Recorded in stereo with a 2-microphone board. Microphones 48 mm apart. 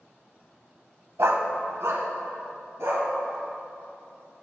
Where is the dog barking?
75° right (ahead or behind), 0.7 m; by 3.1 s 70° right (ahead or behind), 2.5 m.